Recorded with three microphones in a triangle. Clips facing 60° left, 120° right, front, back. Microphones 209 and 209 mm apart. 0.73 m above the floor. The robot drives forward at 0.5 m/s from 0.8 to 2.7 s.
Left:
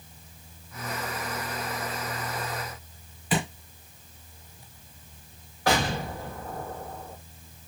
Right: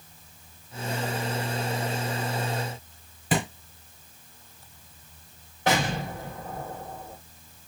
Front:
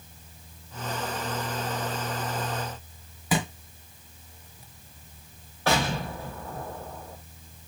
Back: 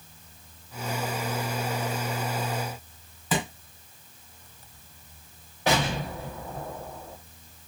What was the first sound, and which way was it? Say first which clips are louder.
A thud: right 1 dB, front 1 dB; 75° right.